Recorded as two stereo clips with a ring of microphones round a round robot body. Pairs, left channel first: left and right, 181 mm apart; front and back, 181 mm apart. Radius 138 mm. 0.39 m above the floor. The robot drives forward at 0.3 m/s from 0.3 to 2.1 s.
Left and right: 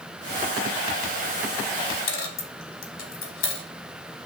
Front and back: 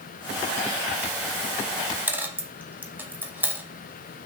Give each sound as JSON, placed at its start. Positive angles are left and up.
{"t": 2.1, "sound": "a dropped coin", "azimuth_deg": 100, "distance_m": 0.9}